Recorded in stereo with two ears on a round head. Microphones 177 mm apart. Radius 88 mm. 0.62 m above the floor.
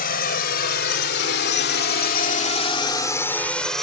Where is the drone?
50° left (ahead or behind); by 3.8 s centre (ahead or behind).